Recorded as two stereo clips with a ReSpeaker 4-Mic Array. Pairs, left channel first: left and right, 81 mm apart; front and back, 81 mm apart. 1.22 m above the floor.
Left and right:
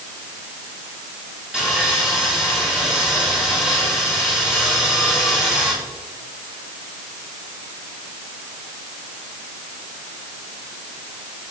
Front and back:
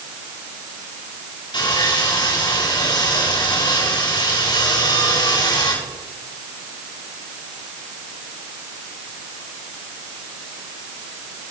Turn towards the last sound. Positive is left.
turn(degrees=-5)